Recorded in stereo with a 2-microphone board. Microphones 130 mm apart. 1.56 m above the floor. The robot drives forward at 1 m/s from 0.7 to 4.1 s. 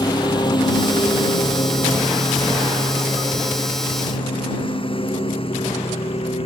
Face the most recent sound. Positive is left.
turn(degrees=45)  # may be behind; listen again after turning